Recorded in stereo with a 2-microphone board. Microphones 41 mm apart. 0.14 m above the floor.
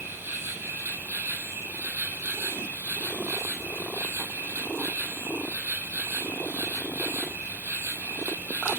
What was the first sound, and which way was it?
An insect, 75° right (ahead or behind).